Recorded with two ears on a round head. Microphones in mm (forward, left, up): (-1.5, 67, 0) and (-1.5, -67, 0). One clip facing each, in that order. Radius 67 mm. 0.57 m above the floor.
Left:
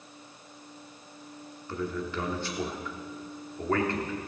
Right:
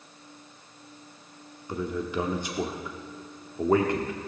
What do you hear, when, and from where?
1.7 s a man speaking: 15° right (ahead or behind), 0.9 m